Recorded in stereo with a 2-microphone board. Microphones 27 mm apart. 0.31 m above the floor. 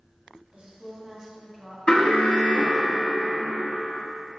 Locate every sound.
0.5 s a woman speaking: 45° right (ahead or behind), 1.8 m; by 1.8 s centre (ahead or behind), 1.8 m
1.9 s an alarm: 35° left (ahead or behind), 1.1 m